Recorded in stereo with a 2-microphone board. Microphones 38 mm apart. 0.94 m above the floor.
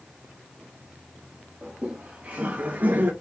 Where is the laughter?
25° right (ahead or behind), 1.4 m; by 3.1 s 55° right (ahead or behind), 1.1 m.